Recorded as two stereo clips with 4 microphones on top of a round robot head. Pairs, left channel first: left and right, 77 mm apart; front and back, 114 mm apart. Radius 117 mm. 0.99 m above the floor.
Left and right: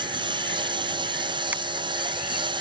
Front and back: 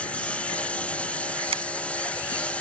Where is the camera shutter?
155° right.